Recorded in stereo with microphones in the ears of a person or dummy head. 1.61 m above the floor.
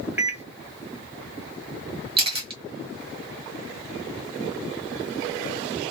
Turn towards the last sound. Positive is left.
turn(degrees=-25)  # may be behind; listen again after turning